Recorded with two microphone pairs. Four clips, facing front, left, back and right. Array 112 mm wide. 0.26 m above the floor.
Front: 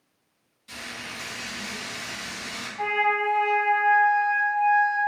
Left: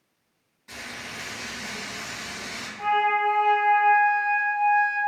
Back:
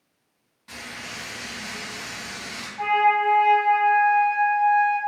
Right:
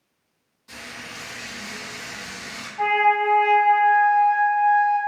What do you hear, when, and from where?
0.7 s frying: 170° left, 1.8 m
2.8 s a flute: 100° right, 0.5 m